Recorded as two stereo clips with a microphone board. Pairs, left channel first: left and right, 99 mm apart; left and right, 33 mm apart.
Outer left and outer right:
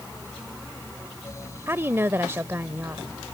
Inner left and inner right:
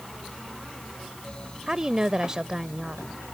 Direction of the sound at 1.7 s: 25° right (ahead or behind).